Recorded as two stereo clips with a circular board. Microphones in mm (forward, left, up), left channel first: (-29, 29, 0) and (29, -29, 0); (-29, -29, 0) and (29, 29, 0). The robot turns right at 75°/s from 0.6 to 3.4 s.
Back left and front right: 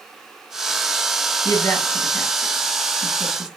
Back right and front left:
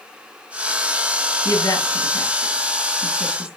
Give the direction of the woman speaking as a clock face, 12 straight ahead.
6 o'clock.